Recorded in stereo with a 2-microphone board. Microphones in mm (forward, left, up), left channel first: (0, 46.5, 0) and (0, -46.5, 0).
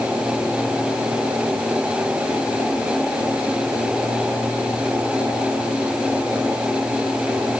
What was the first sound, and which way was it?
Only background noise.